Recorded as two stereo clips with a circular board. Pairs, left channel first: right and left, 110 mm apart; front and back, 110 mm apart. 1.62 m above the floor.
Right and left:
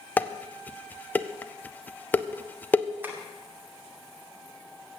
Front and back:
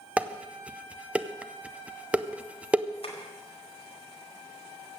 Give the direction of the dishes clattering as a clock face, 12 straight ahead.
4 o'clock.